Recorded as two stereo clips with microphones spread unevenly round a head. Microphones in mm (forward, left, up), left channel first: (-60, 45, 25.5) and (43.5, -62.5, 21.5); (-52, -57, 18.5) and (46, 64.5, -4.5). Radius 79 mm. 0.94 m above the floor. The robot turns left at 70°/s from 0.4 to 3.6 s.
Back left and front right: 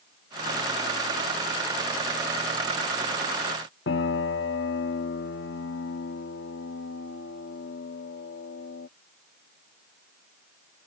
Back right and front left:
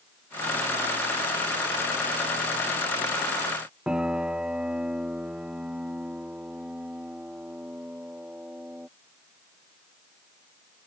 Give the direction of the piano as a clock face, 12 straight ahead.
7 o'clock.